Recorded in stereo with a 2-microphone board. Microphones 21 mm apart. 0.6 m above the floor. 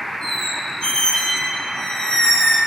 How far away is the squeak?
About 3 m.